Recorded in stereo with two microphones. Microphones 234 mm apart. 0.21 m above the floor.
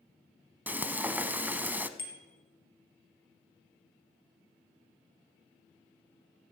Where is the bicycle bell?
60° left (ahead or behind), 3.5 m.